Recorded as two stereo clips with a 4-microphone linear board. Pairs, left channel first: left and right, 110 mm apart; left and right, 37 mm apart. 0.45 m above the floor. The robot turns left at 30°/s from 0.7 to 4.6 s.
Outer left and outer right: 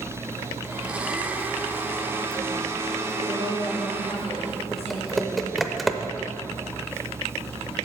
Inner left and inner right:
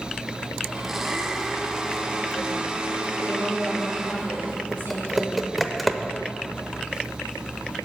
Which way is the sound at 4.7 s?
Centre (ahead or behind).